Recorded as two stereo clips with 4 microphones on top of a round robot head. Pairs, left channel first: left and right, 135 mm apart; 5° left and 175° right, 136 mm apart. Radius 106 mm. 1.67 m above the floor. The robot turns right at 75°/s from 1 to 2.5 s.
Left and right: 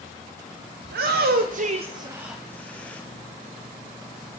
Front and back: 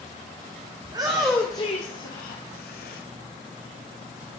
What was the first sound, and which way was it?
A shout, 105° right.